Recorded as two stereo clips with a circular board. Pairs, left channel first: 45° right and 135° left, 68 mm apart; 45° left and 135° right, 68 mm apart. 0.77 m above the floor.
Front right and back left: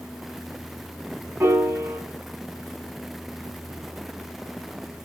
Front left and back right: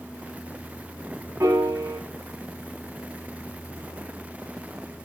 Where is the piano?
175° right, 2.5 m.